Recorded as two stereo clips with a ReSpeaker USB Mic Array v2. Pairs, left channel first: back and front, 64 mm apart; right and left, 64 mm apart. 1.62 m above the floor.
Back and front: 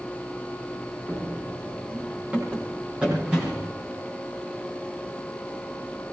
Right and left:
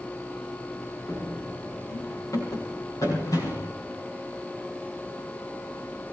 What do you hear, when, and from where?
1.1 s running footsteps: 55° right, 6.5 m; by 3.7 s 80° right, 5.5 m